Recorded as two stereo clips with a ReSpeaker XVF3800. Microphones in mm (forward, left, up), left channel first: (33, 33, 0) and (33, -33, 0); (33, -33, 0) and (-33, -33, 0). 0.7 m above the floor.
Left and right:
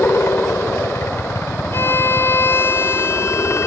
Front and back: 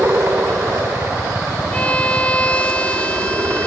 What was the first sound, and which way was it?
A helicopter, 135° left.